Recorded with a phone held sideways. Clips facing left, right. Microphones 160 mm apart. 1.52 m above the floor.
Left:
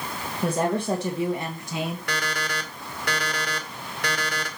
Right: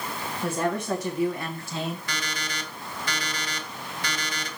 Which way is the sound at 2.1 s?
70° left (ahead or behind).